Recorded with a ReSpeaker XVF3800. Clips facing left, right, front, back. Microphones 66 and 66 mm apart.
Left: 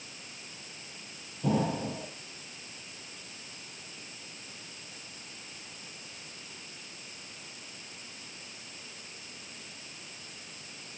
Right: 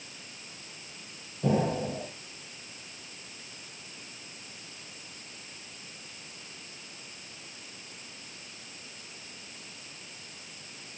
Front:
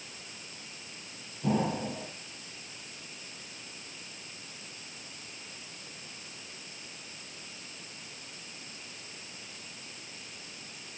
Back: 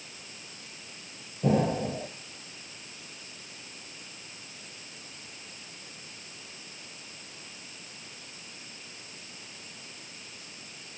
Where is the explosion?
135° right, 4.5 m.